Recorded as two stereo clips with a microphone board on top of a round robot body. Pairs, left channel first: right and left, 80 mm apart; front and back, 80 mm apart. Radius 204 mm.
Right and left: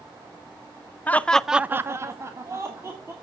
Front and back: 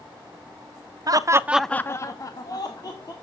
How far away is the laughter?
About 1.0 m.